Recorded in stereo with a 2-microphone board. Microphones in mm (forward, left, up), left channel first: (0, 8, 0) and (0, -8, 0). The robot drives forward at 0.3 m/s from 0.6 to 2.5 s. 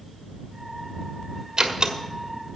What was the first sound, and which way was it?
A door slam, 55° right (ahead or behind).